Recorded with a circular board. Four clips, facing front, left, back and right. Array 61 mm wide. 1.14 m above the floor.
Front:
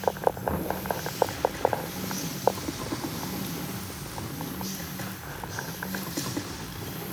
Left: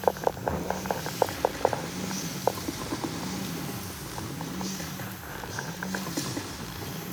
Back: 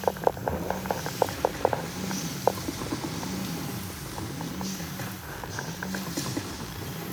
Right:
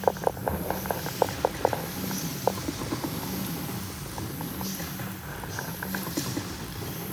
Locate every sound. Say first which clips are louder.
0.5 s knocking: even, even; 20° left, 10 m